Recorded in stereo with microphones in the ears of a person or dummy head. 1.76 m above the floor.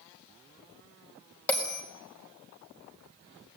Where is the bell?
10° left (ahead or behind), 4 m.